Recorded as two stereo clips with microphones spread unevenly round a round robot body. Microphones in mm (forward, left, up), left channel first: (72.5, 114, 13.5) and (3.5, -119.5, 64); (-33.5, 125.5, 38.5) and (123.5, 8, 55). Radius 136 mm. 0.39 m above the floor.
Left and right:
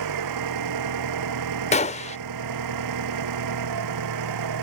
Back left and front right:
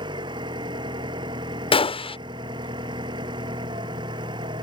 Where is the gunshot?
100° left.